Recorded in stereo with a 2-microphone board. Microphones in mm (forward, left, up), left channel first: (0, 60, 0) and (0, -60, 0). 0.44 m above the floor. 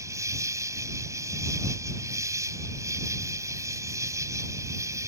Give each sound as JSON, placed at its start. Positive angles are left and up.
{"t": 0.0, "sound": "an insect", "side_deg": -25}